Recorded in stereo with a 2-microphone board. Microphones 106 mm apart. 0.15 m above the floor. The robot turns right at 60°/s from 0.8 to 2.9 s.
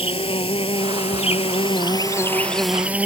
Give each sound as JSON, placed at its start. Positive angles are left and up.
{"t": 0.0, "sound": "an insect", "azimuth_deg": 65}